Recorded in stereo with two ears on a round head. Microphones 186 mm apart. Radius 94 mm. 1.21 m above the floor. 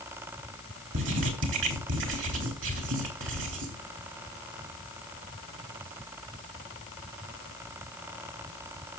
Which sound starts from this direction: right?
Writing, at 0.9 s.